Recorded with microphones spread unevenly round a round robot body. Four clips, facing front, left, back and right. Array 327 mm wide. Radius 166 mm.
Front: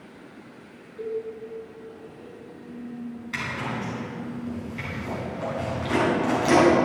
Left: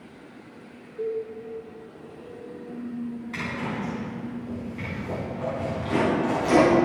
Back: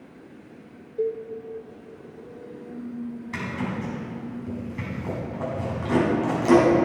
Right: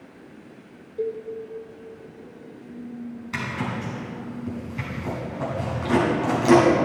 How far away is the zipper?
About 5 m.